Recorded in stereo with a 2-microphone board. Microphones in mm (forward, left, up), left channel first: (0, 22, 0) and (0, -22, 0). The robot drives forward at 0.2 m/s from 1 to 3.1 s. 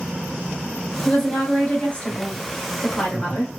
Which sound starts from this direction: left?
A woman speaking, at 1.1 s.